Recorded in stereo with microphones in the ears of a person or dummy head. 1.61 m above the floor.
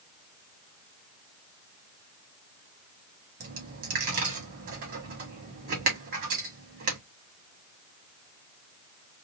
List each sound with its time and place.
3.4 s a dropped coin: 55° right (ahead or behind), 1.9 m